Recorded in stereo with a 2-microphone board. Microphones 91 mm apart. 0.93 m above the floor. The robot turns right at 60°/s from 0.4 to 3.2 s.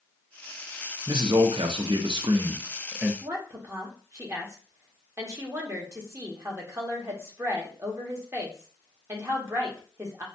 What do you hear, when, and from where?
1.1 s a man speaking: 130° right, 0.6 m; by 3.1 s 10° right, 0.6 m
3.2 s a woman speaking: 30° right (ahead or behind), 1.2 m